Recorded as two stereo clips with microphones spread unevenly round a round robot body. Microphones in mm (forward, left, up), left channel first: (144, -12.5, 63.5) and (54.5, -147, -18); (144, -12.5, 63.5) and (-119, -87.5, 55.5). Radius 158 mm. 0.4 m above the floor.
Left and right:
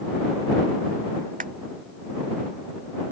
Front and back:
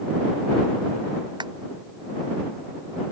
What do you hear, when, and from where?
1.4 s a clap: 90° right